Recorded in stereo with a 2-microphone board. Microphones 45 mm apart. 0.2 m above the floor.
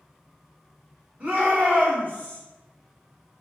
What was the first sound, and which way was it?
A shout, 30° right (ahead or behind).